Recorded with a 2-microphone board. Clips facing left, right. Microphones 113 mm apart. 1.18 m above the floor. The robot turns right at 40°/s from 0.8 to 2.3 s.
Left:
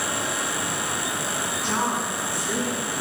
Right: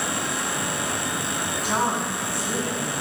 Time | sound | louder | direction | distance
1.6 | a woman speaking | right 2 dB | 10° right (ahead or behind) | 4.5 m